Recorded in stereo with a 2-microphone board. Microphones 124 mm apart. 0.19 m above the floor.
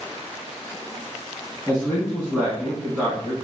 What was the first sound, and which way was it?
A man speaking, 15° right (ahead or behind).